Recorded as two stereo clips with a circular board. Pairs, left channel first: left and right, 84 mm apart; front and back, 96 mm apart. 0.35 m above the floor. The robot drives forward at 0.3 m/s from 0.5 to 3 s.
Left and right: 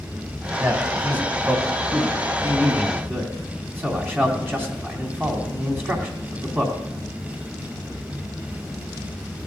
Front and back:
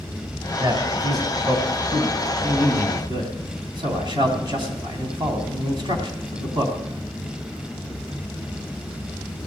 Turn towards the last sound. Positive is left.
turn(degrees=-155)